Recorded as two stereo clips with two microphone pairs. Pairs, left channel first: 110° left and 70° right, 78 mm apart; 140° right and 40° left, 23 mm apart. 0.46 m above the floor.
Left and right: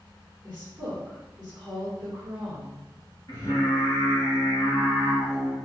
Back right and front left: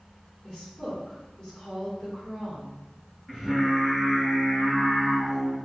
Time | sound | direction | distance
0.4 | a woman speaking | 140° right | 1.6 m
3.3 | singing | 140° left | 1.3 m